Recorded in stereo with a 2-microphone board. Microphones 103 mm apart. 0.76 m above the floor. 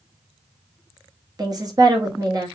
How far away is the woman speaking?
About 1.1 m.